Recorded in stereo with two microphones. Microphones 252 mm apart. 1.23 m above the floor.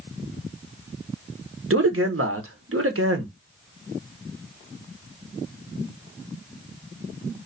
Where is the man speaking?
55° right (ahead or behind), 0.9 m.